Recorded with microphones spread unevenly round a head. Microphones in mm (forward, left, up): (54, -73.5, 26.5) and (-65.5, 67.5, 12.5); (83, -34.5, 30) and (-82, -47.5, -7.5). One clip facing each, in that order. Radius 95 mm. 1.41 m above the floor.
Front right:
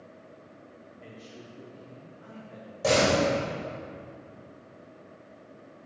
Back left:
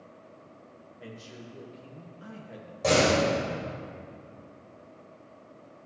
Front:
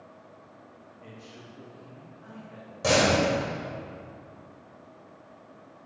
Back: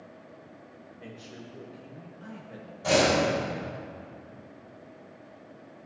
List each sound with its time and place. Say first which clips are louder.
1.0 s a man speaking: back left 3 dB, back 3 dB; 170° left, 1.4 m
2.8 s a door slam: even, even; 35° left, 4.5 m